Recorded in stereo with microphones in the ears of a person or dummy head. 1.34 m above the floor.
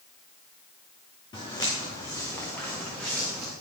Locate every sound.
1.3 s footsteps: 25° left (ahead or behind), 4 m; by 3.5 s centre (ahead or behind), 4 m